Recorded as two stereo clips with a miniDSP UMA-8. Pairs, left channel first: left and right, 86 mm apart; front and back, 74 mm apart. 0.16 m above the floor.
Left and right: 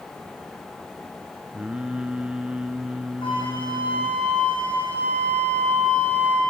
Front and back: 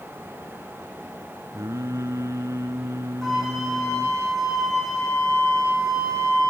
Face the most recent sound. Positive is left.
turn(degrees=85)